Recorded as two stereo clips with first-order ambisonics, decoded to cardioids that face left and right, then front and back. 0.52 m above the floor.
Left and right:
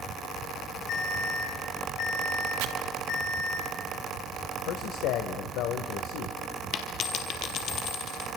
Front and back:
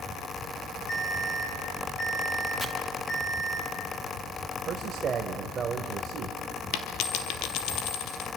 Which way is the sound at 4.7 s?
115° left.